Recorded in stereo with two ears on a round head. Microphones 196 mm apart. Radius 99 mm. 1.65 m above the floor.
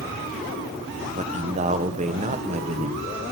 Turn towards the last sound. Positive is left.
turn(degrees=-30)  # may be behind; listen again after turning